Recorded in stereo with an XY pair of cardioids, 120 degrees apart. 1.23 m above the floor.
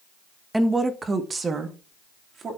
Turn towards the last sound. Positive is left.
turn(degrees=-40)